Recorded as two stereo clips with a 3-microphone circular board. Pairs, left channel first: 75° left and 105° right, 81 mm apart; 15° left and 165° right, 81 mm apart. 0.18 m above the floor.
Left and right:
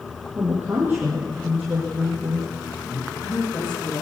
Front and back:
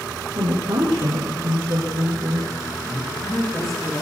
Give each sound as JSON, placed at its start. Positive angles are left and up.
{"t": 0.3, "sound": "a woman speaking", "azimuth_deg": -170, "distance_m": 6.5}
{"t": 2.9, "sound": "a woman speaking", "azimuth_deg": 105, "distance_m": 10.0}